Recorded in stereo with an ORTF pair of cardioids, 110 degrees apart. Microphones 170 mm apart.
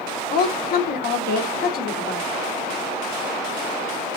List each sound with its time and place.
0.3 s a woman speaking: 60° left, 1.6 m